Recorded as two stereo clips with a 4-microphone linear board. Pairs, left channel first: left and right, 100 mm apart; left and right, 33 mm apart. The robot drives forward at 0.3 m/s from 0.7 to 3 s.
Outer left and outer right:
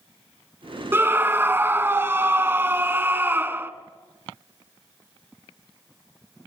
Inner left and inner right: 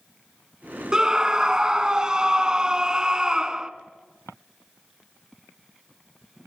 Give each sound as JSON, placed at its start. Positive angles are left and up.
{"t": 0.9, "sound": "a scream", "side_deg": -20, "distance_m": 1.2}